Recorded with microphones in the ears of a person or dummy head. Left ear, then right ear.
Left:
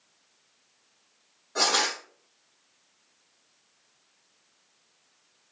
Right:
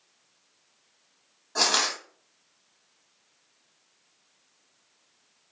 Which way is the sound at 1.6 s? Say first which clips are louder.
Right 1 dB; 15° right (ahead or behind).